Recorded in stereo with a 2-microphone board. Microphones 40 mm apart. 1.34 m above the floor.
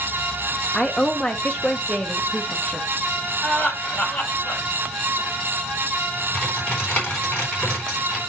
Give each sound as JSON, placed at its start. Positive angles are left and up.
{"t": 0.7, "sound": "a woman speaking", "side_deg": 10, "distance_m": 1.1}
{"t": 3.4, "sound": "laughter", "side_deg": 25, "distance_m": 6.0}
{"t": 6.3, "sound": "typing on a keyboard", "side_deg": 30, "distance_m": 3.0}